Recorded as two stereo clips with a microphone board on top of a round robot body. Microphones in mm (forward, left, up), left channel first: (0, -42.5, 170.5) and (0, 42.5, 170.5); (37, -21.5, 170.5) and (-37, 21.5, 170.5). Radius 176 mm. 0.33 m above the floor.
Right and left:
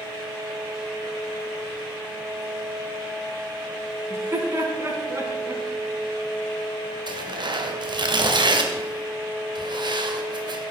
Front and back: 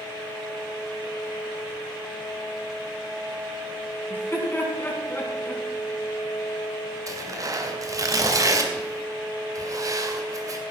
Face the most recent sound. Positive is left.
turn(degrees=105)